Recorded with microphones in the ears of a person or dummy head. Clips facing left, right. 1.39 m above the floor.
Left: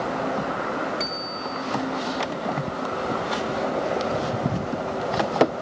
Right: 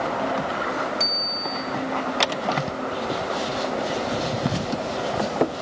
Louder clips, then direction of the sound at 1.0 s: Even; 5° right (ahead or behind).